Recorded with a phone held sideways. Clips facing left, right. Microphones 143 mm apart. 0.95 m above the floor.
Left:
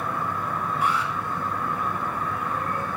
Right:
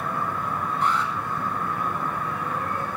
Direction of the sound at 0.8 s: 10° left (ahead or behind).